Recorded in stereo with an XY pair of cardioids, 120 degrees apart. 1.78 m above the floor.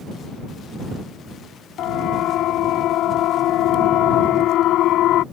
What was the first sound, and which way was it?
A siren, 65° left.